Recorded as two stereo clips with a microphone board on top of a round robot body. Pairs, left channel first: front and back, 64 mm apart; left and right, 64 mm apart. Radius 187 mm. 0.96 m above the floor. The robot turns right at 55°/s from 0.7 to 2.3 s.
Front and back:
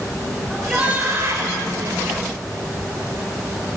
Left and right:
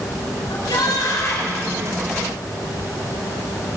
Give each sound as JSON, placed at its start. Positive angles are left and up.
{"t": 0.5, "sound": "a shout", "azimuth_deg": 105, "distance_m": 5.5}